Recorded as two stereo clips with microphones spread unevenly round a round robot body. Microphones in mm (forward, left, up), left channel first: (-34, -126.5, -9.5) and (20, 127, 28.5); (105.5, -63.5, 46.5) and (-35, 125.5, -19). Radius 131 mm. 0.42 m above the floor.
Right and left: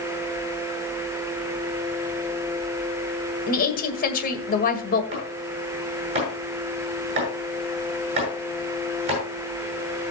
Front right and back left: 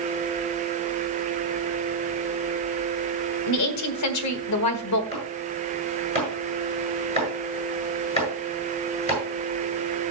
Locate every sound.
3.5 s a woman speaking: 55° right, 1.8 m
5.1 s chopping: 10° left, 7.5 m